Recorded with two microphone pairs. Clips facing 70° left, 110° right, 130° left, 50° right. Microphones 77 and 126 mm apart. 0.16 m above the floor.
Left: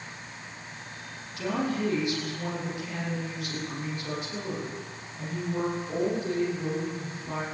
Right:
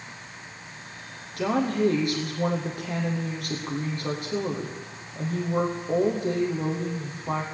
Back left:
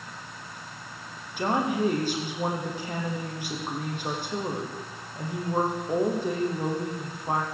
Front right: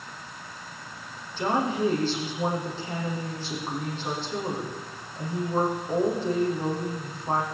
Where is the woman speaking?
150° right, 7.5 m.